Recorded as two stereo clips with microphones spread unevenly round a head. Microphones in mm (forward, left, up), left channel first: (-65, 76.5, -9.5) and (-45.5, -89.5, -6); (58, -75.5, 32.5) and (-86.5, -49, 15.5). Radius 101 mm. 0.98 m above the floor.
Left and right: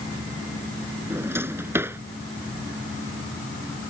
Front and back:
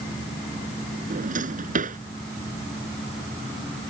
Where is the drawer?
160° right.